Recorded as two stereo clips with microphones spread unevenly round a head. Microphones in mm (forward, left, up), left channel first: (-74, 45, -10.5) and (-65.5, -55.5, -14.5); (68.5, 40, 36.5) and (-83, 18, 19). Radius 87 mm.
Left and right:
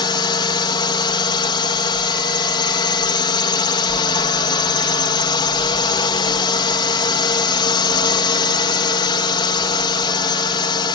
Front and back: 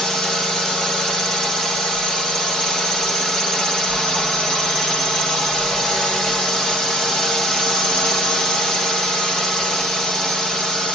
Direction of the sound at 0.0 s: 100° left.